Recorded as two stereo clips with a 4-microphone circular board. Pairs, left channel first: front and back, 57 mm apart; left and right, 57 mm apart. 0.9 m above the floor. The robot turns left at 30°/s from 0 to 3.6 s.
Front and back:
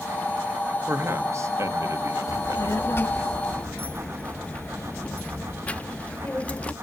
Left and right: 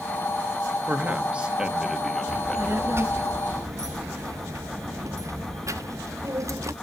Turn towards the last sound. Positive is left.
turn(degrees=-70)